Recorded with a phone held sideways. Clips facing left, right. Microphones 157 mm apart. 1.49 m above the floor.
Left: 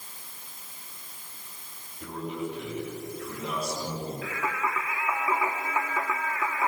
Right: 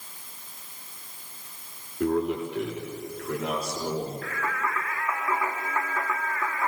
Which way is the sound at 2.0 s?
75° right (ahead or behind).